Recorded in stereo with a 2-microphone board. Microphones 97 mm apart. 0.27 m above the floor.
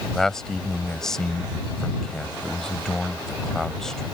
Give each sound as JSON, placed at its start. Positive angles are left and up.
{"t": 0.1, "sound": "a man speaking", "side_deg": 5}